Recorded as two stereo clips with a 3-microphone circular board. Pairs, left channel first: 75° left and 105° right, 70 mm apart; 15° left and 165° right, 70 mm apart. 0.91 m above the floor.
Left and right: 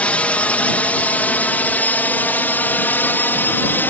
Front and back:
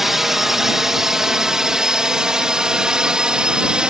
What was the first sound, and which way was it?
A drone, 120° left.